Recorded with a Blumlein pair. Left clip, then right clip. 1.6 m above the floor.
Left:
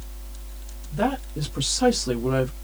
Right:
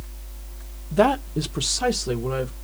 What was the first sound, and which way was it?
A woman speaking, 30° right.